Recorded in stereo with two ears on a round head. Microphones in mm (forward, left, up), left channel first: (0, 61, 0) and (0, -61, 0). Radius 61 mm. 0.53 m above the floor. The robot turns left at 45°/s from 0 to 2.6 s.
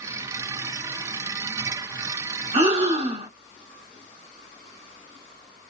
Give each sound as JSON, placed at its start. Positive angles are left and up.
{"t": 2.5, "sound": "breathing", "side_deg": -45, "distance_m": 1.2}